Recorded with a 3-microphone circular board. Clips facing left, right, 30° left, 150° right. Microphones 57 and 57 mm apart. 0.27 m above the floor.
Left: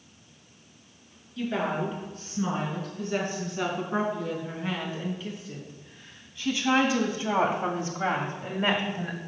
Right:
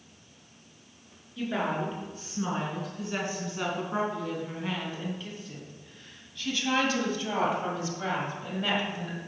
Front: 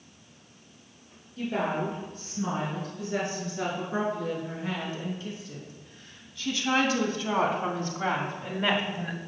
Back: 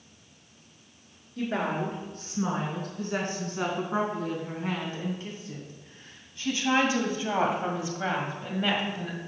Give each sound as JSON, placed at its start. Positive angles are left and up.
{"t": 1.4, "sound": "a woman speaking", "azimuth_deg": -170, "distance_m": 4.5}